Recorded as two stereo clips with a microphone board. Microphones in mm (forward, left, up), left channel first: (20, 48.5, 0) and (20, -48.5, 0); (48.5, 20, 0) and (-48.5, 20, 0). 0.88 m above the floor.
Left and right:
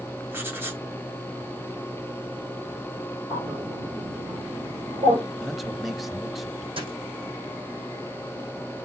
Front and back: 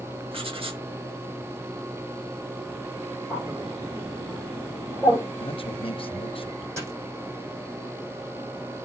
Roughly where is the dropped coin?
Behind right.